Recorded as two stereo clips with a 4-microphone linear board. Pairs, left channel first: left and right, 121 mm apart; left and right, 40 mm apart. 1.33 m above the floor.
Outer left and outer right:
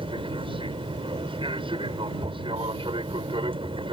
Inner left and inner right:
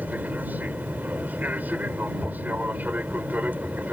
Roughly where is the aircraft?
Right.